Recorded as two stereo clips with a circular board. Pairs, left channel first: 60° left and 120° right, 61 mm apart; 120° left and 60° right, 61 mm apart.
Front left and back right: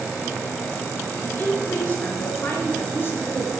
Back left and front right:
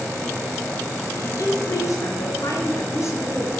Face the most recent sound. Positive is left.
turn(degrees=95)